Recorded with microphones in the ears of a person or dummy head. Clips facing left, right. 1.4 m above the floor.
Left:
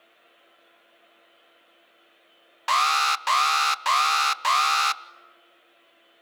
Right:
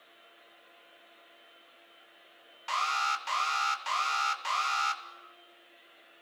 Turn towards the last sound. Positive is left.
turn(degrees=65)  # may be behind; listen again after turning